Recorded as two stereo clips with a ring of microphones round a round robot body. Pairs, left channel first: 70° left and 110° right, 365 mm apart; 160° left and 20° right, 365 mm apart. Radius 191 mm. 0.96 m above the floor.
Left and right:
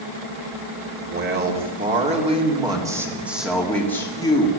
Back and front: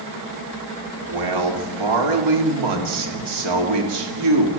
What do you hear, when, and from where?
1.0 s a man speaking: 50° right, 3.5 m; by 4.5 s 10° right, 3 m